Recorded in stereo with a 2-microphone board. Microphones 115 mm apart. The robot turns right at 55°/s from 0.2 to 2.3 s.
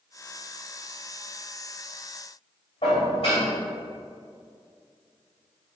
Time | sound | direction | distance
2.8 | dishes clattering | 60° left (ahead or behind) | 1.9 m